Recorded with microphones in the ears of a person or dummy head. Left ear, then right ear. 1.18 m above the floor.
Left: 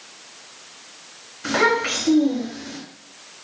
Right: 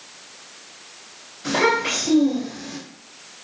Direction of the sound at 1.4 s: 45° left (ahead or behind).